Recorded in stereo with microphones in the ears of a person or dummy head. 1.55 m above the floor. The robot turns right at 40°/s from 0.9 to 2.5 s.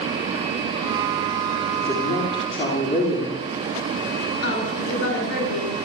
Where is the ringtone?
I don't hear a ringtone.